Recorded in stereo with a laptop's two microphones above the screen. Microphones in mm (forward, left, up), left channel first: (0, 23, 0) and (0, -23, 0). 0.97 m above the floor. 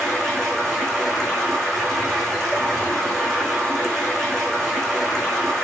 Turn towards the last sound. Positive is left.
turn(degrees=15)  # may be behind; listen again after turning